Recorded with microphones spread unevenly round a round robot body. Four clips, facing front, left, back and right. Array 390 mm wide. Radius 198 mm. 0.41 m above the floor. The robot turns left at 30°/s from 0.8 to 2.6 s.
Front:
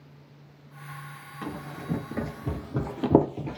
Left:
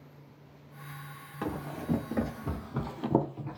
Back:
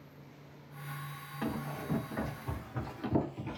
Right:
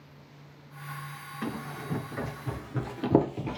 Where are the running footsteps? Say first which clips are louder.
Left 1 dB, front 1 dB; 75° left, 1.8 m; by 3.6 s 55° right, 0.7 m.